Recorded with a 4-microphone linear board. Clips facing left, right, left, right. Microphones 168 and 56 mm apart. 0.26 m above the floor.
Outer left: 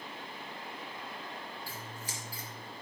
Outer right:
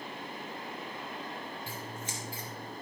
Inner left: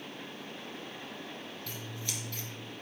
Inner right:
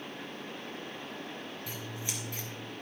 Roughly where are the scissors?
Right.